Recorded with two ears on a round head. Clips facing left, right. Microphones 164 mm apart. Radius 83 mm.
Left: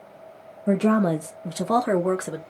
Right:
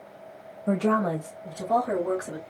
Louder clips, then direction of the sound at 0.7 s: Left 4 dB; 15° left (ahead or behind).